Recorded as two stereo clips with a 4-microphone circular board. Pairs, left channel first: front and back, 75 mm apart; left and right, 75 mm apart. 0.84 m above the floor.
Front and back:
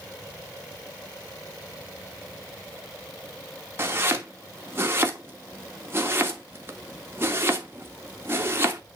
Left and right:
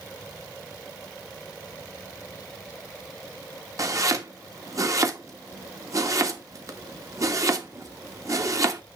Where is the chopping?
125° right, 1.2 m.